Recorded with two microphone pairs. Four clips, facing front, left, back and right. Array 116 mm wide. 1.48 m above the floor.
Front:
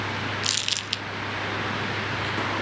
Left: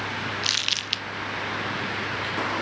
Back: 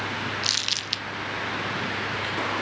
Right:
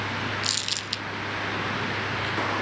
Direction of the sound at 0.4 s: 115° left.